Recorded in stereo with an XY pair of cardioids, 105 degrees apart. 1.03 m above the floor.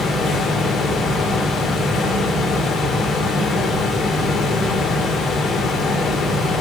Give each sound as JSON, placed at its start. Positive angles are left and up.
{"t": 0.0, "sound": "a fan", "azimuth_deg": 65, "distance_m": 3.0}